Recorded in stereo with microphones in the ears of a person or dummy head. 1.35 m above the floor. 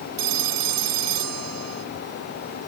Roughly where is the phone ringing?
Right.